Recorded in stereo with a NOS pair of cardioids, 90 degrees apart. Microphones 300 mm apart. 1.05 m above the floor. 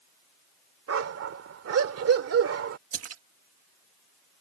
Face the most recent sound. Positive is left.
turn(degrees=-50)